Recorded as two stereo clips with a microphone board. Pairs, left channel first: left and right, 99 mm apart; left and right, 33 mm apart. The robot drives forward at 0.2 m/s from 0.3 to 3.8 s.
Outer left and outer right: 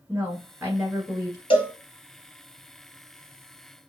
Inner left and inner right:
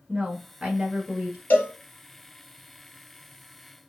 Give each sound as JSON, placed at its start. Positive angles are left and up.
{"t": 0.1, "sound": "a woman speaking", "side_deg": -15, "distance_m": 1.3}
{"t": 1.5, "sound": "a cowbell", "side_deg": 55, "distance_m": 1.6}